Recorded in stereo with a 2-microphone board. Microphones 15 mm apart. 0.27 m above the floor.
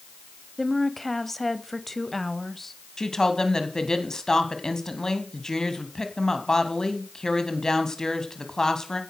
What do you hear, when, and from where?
0.6 s a woman speaking: 25° left (ahead or behind), 1.2 m
3.0 s a woman speaking: 45° left (ahead or behind), 2.5 m